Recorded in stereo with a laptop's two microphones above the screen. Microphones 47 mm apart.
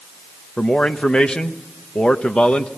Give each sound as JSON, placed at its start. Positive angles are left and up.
{"t": 0.6, "sound": "a man speaking", "side_deg": 20, "distance_m": 1.1}